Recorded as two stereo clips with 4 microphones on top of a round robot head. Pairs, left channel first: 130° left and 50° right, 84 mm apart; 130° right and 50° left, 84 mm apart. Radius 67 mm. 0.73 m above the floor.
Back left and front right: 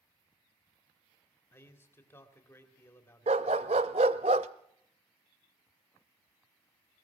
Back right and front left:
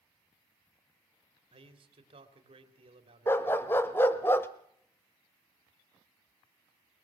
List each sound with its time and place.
1.5 s a man speaking: 65° left, 3 m
3.3 s a dog barking: 60° right, 0.7 m